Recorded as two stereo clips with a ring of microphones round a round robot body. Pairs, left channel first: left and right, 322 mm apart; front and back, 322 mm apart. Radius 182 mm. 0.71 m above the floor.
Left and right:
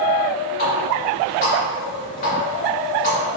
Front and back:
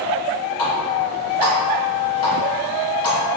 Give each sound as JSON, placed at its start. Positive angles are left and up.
{"t": 0.6, "sound": "a running tap", "azimuth_deg": 25, "distance_m": 1.6}